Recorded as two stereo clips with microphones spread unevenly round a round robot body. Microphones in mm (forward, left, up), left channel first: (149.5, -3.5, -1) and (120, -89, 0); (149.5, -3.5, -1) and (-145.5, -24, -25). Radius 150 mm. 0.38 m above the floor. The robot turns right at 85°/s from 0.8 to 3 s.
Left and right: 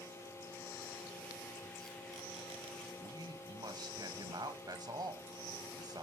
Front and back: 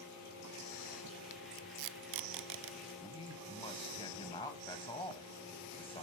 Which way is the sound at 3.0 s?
70° right.